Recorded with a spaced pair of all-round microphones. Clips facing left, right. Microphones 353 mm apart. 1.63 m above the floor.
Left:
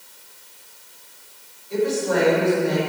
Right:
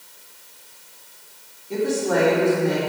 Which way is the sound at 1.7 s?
60° right (ahead or behind).